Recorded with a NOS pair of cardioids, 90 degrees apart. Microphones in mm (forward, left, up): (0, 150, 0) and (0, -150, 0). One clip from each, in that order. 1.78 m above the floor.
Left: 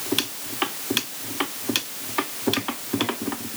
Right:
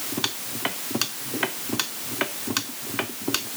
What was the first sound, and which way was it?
Only background noise.